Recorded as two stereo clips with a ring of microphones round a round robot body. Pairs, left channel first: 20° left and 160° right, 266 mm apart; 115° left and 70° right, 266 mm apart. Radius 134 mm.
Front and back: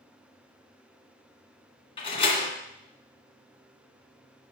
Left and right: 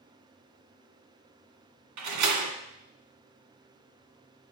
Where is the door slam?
50° right, 2 m.